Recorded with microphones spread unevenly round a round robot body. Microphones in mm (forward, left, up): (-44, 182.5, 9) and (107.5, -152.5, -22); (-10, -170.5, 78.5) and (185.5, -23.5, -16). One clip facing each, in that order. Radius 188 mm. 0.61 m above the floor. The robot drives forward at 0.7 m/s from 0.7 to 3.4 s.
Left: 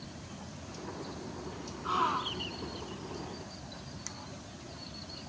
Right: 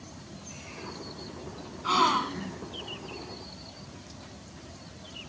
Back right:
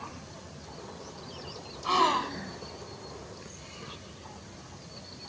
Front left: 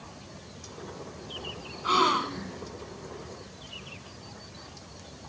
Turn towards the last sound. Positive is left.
turn(degrees=-70)